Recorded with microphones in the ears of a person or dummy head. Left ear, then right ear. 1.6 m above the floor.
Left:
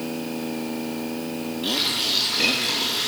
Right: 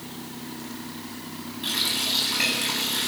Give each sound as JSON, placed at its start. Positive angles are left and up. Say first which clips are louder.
{"t": 1.6, "sound": "a running tap", "louder": "left 2 dB", "side_deg": -20, "distance_m": 9.0}